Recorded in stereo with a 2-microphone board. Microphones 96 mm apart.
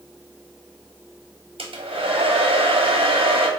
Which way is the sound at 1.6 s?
70° right (ahead or behind).